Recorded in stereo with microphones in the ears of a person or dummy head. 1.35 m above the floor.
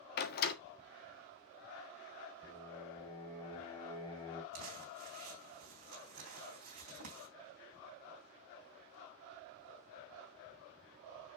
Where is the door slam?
60° left (ahead or behind), 1.6 m.